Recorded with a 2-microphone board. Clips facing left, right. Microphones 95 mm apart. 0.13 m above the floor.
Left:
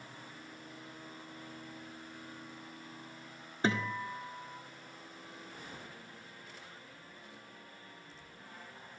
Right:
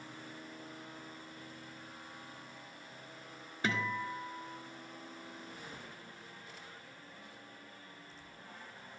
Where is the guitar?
25° left (ahead or behind), 1.1 m.